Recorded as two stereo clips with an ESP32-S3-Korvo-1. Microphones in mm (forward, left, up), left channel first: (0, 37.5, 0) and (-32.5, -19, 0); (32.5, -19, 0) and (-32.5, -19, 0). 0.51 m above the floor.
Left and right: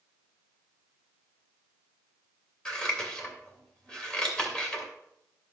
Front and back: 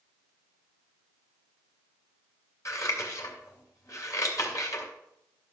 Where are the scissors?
15° right, 2.5 m.